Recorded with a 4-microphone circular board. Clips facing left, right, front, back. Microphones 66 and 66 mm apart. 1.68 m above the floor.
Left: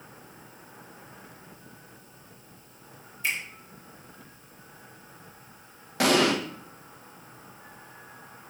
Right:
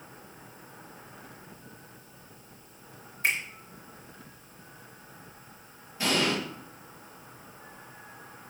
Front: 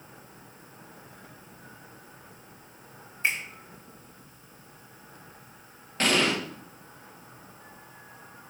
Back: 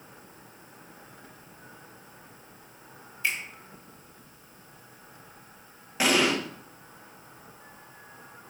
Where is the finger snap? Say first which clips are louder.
Right 2 dB, front 2 dB; 55° right, 2 m.